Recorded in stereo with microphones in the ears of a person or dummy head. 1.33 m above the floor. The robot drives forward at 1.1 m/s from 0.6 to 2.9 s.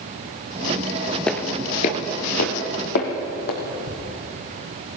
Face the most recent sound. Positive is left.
turn(degrees=-45)  # may be behind; listen again after turning